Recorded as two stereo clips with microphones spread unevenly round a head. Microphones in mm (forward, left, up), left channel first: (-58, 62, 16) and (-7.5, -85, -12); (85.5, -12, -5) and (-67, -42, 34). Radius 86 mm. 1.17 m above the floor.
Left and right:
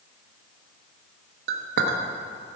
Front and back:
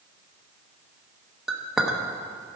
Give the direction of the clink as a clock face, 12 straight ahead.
3 o'clock.